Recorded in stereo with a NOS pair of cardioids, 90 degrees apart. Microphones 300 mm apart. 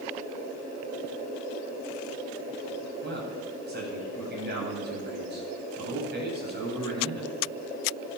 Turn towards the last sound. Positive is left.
turn(degrees=-35)